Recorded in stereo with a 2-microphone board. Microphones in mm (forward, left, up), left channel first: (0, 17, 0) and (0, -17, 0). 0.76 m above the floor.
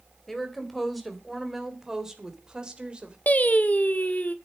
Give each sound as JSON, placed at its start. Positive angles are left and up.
{"t": 0.3, "sound": "a woman speaking", "side_deg": 5, "distance_m": 3.5}
{"t": 3.3, "sound": "singing", "side_deg": 55, "distance_m": 1.3}